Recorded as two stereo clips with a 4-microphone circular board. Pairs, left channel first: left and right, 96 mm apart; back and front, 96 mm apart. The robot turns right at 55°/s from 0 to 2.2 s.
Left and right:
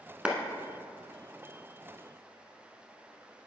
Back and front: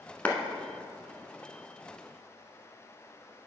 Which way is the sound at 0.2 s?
145° right.